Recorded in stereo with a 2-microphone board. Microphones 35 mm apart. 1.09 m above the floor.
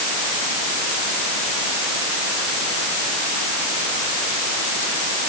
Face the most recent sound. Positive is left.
No sound to turn to.